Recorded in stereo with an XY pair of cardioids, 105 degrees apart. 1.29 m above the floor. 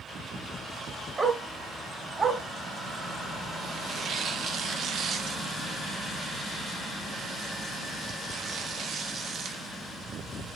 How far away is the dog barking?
About 2.5 m.